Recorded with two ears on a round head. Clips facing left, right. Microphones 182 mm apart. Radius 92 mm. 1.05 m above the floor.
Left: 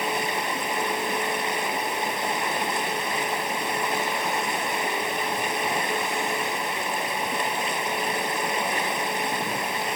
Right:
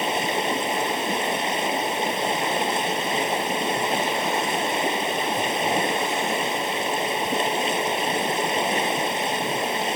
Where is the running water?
20° right (ahead or behind).